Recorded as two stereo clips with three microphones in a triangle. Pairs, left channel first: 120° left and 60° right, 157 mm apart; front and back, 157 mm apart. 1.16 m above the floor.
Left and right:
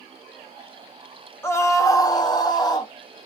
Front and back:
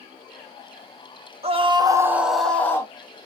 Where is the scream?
175° right, 0.8 m; by 2.9 s 60° left, 0.9 m.